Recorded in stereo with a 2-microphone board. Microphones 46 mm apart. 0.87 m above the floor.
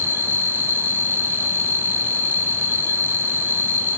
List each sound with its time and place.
0.0 s an insect: 55° left (ahead or behind), 1.9 m